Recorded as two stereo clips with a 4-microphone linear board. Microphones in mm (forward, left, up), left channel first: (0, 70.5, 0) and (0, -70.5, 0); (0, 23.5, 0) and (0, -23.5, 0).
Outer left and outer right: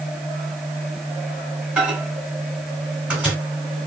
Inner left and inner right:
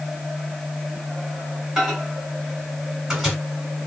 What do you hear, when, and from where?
1.8 s a microwave: 10° right (ahead or behind), 1.9 m